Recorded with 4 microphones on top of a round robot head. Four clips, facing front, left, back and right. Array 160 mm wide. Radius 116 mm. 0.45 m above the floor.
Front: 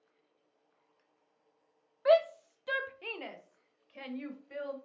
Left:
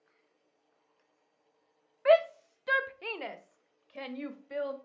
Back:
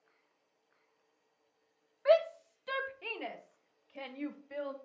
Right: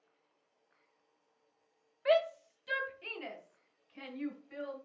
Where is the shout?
60° left, 0.8 m; by 4.8 s 90° left, 2.5 m.